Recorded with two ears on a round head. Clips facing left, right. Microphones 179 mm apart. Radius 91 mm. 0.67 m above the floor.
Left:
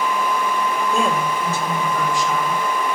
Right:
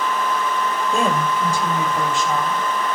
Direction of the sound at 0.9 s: Centre (ahead or behind).